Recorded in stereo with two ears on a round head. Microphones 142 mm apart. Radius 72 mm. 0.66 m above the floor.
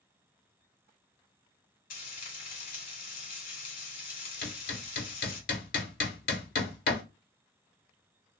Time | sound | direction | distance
1.9 | frying | 55° left (ahead or behind) | 1.6 m
4.4 | hammering | 55° left (ahead or behind) | 1.3 m